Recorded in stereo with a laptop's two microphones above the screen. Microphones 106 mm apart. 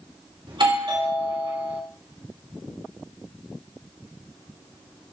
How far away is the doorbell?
About 2.5 m.